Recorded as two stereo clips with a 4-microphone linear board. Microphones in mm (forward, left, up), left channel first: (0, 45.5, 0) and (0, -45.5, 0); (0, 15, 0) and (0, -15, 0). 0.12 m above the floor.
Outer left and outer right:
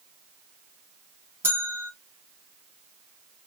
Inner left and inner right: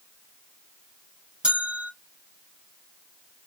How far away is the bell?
About 0.9 m.